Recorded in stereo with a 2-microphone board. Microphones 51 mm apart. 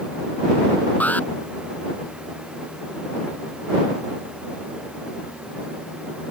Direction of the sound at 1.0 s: 35° left (ahead or behind).